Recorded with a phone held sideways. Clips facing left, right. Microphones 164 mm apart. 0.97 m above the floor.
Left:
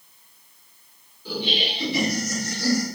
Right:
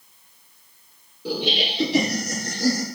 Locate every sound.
1.2 s laughter: 80° right, 2.5 m; by 2.9 s 40° right (ahead or behind), 2.5 m